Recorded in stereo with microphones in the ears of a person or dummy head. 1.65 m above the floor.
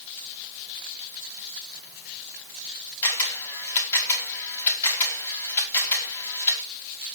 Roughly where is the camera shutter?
Centre.